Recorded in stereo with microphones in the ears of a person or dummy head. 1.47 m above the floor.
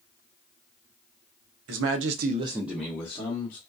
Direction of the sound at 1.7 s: 80° right.